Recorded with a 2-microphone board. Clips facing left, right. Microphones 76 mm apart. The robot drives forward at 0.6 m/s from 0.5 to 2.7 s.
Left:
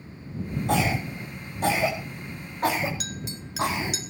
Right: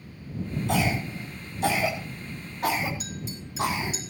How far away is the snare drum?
I don't hear a snare drum.